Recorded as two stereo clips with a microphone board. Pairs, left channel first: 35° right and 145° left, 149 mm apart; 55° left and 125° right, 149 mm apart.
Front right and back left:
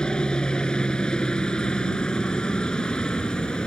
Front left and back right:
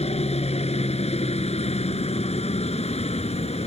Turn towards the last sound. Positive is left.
turn(degrees=50)